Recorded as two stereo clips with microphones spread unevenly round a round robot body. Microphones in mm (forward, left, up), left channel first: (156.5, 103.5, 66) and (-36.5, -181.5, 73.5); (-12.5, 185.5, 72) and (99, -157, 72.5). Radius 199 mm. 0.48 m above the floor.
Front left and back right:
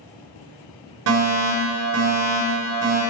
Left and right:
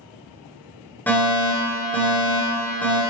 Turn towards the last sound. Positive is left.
turn(degrees=-165)